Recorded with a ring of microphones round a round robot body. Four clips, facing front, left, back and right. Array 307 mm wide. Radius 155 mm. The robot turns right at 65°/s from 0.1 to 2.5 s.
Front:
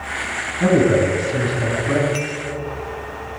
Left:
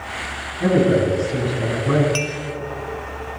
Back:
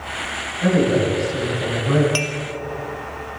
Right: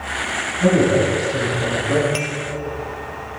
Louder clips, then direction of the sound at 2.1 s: Even, even; 175° left.